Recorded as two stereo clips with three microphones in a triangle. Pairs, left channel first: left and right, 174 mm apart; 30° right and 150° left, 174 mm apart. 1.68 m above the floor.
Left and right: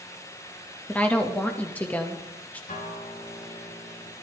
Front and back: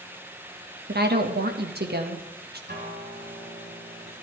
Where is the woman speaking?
170° left, 2 m.